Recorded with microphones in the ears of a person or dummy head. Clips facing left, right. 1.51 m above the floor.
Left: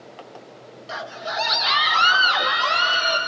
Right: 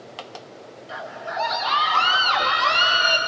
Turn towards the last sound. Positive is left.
turn(degrees=-10)  # may be behind; listen again after turning